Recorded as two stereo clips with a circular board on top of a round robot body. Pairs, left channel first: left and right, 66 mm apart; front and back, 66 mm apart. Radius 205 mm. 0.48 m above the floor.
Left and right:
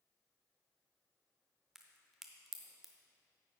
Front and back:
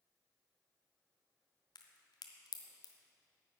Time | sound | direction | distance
1.8 | a crack | 5° right | 0.8 m